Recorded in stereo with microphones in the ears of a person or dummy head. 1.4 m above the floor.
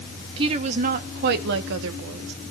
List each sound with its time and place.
0.4 s a woman speaking: 25° right (ahead or behind), 1.7 m; by 2.3 s 75° right (ahead or behind), 2.5 m